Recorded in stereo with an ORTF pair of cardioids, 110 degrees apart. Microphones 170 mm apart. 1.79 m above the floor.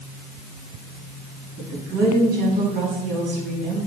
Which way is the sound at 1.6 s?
65° right.